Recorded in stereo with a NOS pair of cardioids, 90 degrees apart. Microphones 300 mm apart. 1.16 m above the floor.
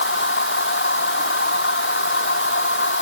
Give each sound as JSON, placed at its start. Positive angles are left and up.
{"t": 0.0, "sound": "a machine running", "azimuth_deg": 40}